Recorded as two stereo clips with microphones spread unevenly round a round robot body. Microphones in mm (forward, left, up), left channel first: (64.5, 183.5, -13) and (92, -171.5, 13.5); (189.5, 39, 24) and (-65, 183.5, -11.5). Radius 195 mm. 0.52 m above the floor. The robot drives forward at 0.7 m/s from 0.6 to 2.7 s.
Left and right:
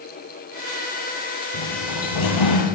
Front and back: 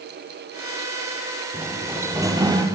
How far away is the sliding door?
About 3.5 m.